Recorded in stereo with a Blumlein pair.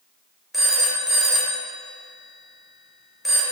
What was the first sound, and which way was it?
A phone ringing, 5° left.